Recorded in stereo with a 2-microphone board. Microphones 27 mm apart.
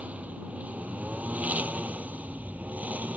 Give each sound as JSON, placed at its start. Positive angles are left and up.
{"t": 0.0, "sound": "a lawn mower", "side_deg": -65}